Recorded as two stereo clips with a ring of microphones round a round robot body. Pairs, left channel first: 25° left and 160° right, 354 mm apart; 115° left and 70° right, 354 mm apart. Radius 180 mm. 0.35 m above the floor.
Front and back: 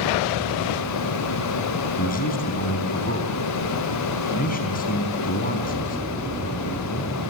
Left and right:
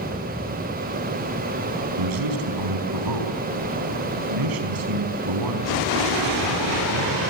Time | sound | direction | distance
2.0 | a man speaking | 45° right | 4.5 m